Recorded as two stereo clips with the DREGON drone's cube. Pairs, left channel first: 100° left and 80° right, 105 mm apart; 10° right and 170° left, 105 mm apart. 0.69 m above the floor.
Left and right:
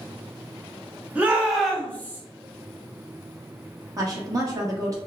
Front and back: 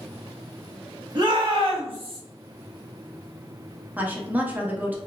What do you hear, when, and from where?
1.1 s a shout: 150° right, 1.0 m; by 2.2 s 160° left, 0.9 m
4.0 s a woman speaking: 120° right, 0.7 m